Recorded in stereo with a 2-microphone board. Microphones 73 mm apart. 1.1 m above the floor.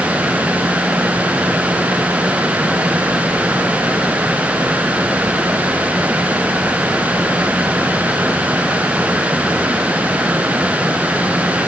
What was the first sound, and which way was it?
Only background noise.